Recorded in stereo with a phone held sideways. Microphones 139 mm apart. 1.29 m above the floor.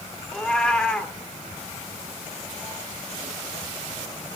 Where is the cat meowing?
5° left (ahead or behind), 1.3 m.